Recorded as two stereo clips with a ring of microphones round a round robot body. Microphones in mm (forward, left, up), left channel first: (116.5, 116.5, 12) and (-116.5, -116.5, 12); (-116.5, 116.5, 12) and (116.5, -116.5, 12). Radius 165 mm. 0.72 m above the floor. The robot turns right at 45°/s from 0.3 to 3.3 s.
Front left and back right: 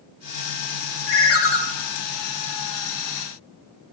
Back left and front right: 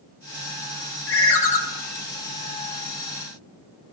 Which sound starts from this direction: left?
A ringtone, at 1.1 s.